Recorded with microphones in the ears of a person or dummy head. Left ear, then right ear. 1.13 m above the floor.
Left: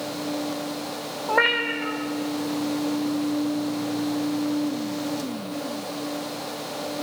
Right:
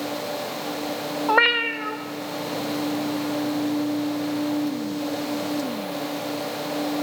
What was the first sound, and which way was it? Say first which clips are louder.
A cat meowing: right 2 dB; 40° right (ahead or behind).